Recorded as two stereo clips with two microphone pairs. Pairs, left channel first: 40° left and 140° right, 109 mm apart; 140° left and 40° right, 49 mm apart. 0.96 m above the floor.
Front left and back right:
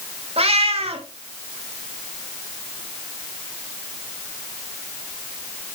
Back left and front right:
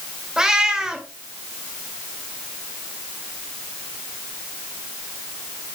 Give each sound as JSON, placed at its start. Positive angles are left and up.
{"t": 0.4, "sound": "a cat meowing", "azimuth_deg": -115, "distance_m": 1.9}